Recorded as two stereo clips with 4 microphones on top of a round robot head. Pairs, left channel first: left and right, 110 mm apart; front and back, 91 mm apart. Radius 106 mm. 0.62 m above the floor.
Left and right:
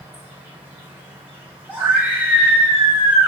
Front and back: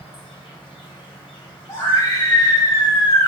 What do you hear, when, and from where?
0.0 s an insect: 15° right, 1.0 m
1.7 s a scream: 20° right, 0.6 m